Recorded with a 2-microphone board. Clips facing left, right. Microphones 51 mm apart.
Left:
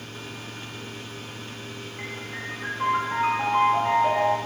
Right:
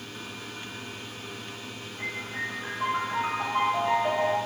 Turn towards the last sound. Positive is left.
turn(degrees=45)  # may be behind; listen again after turning